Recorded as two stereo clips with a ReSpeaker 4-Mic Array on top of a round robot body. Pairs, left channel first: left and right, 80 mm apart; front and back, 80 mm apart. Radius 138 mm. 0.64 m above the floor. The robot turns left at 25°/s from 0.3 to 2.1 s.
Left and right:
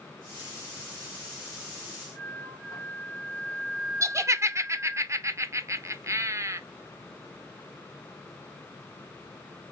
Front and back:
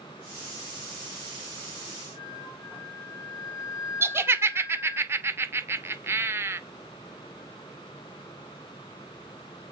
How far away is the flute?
About 3 m.